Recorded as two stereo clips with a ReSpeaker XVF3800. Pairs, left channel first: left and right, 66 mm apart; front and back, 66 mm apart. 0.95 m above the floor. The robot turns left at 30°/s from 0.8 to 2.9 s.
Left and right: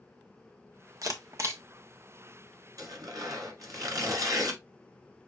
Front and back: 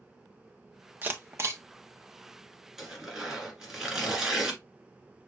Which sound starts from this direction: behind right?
A camera shutter, at 1.0 s.